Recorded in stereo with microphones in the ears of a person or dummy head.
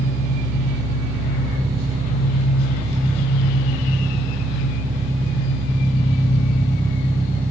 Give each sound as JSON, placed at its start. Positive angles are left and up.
{"t": 0.0, "sound": "an engine running", "side_deg": 30, "distance_m": 1.0}